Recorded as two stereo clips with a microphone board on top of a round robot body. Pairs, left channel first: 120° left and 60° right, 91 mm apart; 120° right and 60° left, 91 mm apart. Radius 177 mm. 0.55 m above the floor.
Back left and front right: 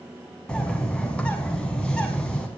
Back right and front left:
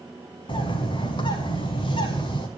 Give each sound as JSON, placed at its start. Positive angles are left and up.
{"t": 0.5, "sound": "a bird", "azimuth_deg": -160, "distance_m": 0.8}